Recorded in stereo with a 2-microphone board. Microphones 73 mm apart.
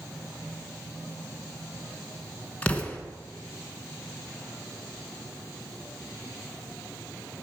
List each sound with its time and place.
2.6 s an explosion: 20° left (ahead or behind), 1.3 m